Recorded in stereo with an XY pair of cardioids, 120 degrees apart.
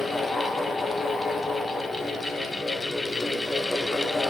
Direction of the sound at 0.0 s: 20° left.